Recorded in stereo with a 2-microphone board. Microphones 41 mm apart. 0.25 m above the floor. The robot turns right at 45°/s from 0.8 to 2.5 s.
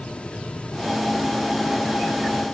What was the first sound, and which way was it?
Only background noise.